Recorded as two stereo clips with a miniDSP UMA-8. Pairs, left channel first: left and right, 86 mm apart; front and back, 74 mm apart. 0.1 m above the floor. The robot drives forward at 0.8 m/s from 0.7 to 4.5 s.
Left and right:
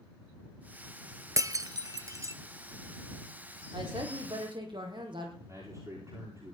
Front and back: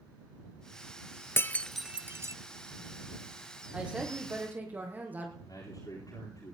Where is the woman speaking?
105° right, 4 m; by 5.3 s 110° right, 4 m.